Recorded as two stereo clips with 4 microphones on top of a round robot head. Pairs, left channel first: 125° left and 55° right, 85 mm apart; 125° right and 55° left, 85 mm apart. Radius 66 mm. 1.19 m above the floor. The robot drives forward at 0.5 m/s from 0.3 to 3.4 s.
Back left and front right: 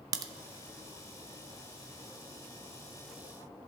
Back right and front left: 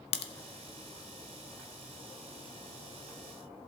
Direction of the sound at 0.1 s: 110° right.